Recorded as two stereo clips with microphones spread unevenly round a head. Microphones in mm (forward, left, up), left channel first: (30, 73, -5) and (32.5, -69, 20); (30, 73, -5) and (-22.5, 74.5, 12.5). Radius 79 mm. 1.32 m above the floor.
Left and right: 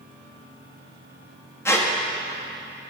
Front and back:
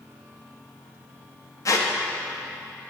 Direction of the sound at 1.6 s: 15° left.